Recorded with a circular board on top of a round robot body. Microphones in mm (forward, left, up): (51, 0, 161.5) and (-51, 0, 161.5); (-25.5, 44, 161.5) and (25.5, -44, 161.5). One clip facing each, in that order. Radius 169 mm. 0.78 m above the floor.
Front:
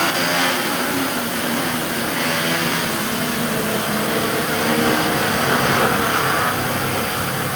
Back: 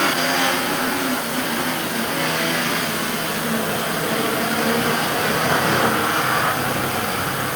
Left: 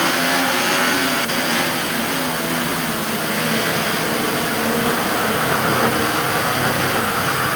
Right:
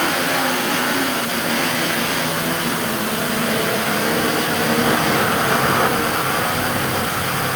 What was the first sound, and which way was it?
Only background noise.